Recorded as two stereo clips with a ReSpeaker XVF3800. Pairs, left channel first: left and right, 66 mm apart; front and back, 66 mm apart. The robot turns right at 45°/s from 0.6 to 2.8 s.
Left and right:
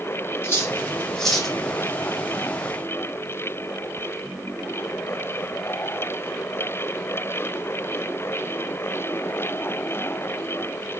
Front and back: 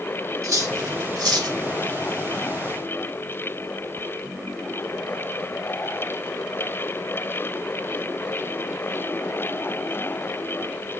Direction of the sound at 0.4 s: 145° left.